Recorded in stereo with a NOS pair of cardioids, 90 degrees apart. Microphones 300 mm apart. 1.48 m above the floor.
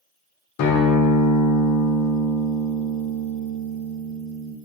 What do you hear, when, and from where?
0.6 s a guitar: 65° left, 0.5 m